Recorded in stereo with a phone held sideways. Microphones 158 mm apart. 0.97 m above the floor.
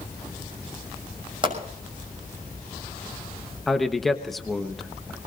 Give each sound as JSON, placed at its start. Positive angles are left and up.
{"t": 1.4, "sound": "a pop", "side_deg": -30, "distance_m": 6.0}
{"t": 3.7, "sound": "a man speaking", "side_deg": 0, "distance_m": 1.0}